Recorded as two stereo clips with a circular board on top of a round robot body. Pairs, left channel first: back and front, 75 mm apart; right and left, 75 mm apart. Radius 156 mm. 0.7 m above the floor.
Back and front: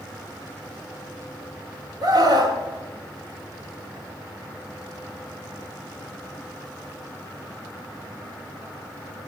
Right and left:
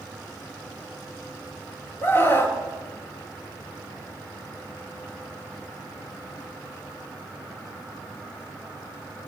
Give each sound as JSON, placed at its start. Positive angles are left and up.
{"t": 2.0, "sound": "a scream", "azimuth_deg": -30, "distance_m": 2.0}